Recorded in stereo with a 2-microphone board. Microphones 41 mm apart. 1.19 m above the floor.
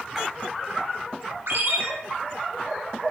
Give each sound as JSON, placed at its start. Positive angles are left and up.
{"t": 0.1, "sound": "a splash", "side_deg": -5, "distance_m": 1.9}
{"t": 1.5, "sound": "a ringtone", "side_deg": -75, "distance_m": 2.0}